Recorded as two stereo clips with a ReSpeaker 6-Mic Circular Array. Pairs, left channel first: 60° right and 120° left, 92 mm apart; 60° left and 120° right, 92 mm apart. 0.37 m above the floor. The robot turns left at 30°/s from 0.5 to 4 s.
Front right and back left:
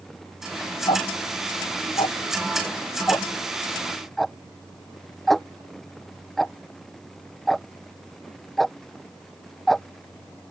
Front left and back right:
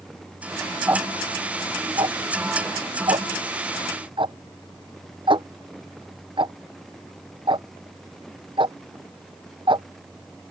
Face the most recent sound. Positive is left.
turn(degrees=-150)